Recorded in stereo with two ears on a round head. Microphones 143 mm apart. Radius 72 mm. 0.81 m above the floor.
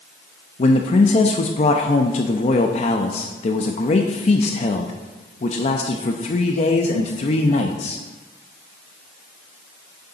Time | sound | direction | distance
0.6 | a man speaking | 40° left (ahead or behind) | 0.6 m